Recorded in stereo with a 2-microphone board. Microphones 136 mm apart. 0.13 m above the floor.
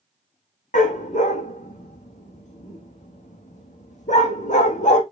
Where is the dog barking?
65° left (ahead or behind), 2.5 m.